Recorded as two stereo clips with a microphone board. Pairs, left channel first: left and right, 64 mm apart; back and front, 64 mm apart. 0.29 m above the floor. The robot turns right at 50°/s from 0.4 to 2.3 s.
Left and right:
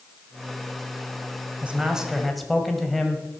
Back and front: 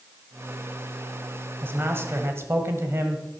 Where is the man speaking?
30° right, 1.7 m; by 3.2 s straight ahead, 1.7 m.